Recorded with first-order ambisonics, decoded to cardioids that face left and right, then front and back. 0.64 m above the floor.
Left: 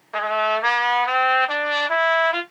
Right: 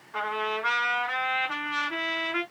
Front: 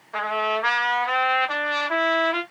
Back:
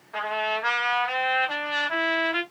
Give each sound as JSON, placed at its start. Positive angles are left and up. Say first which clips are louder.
{"t": 0.1, "sound": "a trumpet", "louder": "left 8 dB, front 3 dB", "azimuth_deg": 75, "distance_m": 1.4}